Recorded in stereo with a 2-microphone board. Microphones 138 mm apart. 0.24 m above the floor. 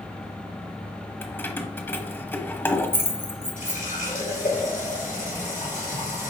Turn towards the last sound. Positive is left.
turn(degrees=70)  # may be behind; listen again after turning